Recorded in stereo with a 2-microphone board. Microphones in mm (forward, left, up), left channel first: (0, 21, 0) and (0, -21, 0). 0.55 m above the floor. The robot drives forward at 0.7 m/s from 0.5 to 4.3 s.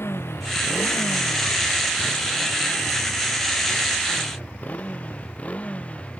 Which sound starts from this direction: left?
A motorcycle, at 0.0 s.